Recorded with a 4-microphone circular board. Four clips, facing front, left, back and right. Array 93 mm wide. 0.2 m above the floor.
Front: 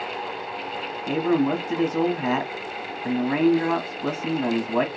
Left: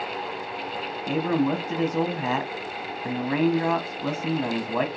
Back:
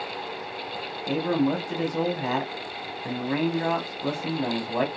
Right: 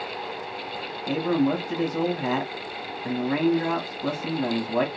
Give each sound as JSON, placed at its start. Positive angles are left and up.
{"t": 1.1, "sound": "a man speaking", "azimuth_deg": 40, "distance_m": 1.0}